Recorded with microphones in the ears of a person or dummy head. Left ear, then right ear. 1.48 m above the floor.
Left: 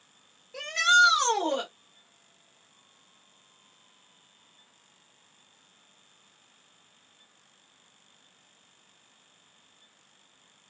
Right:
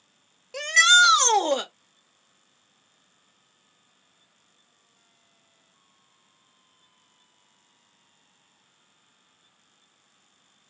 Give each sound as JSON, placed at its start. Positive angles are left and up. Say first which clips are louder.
{"t": 0.5, "sound": "a shout", "louder": "right 5 dB", "side_deg": -60, "distance_m": 0.6}